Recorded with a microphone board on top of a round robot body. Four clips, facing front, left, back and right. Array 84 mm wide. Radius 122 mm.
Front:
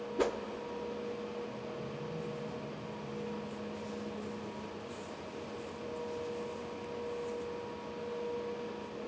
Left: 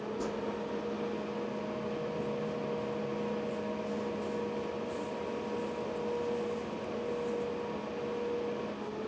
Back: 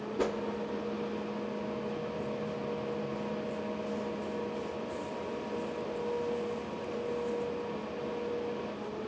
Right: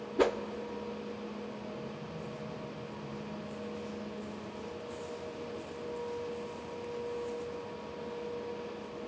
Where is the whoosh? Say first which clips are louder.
Right 11 dB, even; 85° right, 0.5 m.